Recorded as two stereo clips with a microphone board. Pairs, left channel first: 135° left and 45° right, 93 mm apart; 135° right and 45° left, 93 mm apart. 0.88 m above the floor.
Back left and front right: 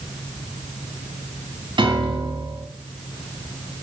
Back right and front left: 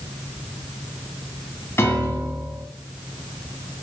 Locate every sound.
1.8 s a piano: 70° right, 2.5 m